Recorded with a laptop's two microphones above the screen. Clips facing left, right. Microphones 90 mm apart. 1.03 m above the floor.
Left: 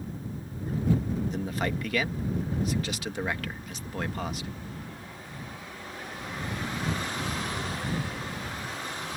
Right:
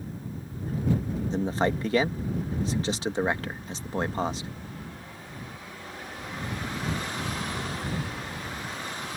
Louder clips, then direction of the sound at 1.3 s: Right 5 dB; 30° right (ahead or behind).